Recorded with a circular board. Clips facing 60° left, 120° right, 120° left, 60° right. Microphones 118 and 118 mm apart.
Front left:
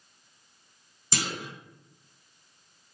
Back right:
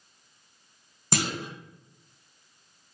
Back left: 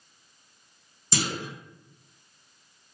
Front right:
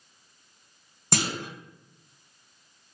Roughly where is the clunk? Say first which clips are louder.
Back right 4 dB, front right 1 dB; right.